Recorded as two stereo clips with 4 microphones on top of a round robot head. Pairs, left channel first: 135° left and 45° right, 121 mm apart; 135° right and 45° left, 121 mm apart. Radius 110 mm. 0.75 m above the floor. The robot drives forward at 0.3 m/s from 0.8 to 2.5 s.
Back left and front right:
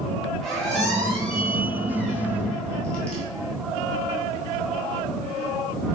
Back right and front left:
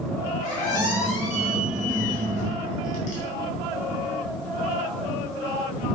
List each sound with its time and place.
0.4 s a squeak: 135° right, 2.5 m; by 3.2 s 140° right, 3 m